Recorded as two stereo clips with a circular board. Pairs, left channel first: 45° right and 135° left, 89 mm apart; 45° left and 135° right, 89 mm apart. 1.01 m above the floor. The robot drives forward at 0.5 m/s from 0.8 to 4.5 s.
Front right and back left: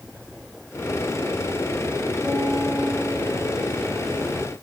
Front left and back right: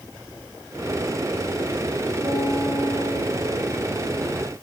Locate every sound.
2.2 s a piano: 125° right, 6.5 m; by 4.3 s 135° right, 7 m